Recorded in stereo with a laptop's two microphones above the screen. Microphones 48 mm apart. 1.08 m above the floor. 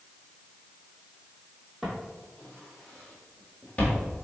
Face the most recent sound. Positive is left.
turn(degrees=35)  # may be behind; listen again after turning